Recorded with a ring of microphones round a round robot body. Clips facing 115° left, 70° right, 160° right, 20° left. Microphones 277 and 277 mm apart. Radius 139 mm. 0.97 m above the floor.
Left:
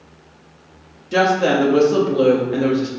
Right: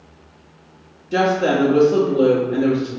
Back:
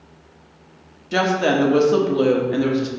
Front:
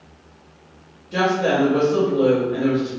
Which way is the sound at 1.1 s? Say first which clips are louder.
Left 1 dB, back 1 dB; 165° right.